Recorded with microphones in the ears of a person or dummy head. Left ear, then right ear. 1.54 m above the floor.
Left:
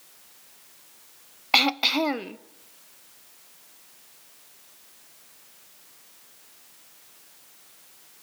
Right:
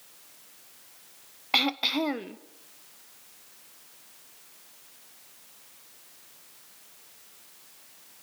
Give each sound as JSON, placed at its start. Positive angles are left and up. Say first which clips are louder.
{"t": 1.5, "sound": "throat clearing", "louder": "left 4 dB", "side_deg": 15, "distance_m": 0.5}